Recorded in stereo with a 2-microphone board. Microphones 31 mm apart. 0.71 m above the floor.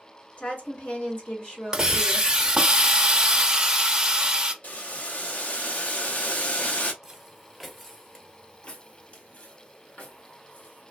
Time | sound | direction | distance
0.4 | a woman speaking | 50° left (ahead or behind) | 1.9 m
1.7 | a hiss | 25° right (ahead or behind) | 0.7 m
4.6 | boiling | 55° left (ahead or behind) | 0.7 m
7.0 | footsteps | 15° right (ahead or behind) | 0.9 m